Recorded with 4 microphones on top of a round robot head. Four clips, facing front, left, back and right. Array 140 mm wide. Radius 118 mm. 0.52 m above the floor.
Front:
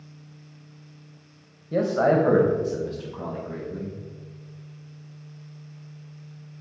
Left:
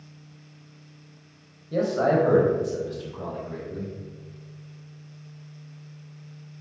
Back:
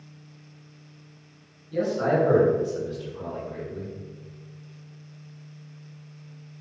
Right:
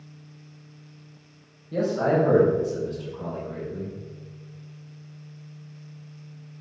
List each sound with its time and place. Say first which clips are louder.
1.7 s a man speaking: left 1 dB, front 3 dB; 15° left, 3 m; by 3.9 s 10° left, 6 m